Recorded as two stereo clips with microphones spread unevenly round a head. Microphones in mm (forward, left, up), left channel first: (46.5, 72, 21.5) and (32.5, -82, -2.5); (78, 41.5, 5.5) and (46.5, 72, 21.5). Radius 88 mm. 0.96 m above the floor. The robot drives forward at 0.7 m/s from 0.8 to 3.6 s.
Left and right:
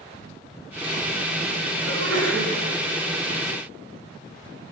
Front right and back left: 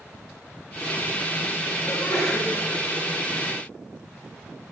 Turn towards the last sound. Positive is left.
turn(degrees=-115)